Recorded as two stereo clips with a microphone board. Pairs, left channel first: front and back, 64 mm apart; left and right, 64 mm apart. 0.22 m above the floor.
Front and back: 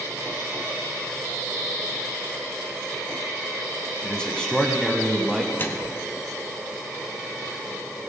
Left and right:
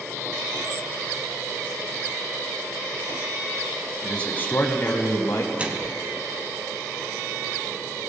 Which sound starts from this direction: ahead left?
A man speaking, at 4.0 s.